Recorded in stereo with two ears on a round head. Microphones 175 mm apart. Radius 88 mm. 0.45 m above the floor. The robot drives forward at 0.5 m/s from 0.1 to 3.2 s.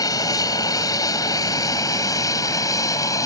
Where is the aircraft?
20° left (ahead or behind).